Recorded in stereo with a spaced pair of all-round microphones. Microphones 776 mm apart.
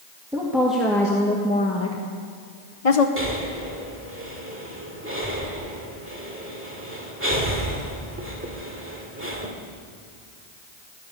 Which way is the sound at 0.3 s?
5° right (ahead or behind).